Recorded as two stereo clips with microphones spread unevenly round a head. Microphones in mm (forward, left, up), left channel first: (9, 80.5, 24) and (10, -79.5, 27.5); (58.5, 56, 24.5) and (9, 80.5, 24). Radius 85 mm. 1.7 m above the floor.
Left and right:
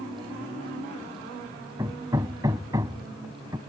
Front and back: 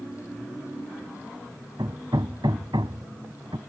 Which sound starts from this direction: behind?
Hammering, at 1.8 s.